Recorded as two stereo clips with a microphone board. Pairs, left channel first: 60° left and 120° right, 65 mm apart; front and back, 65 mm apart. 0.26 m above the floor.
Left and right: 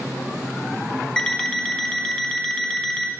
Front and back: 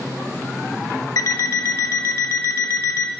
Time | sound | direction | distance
1.2 | an alarm clock | 20° right | 0.6 m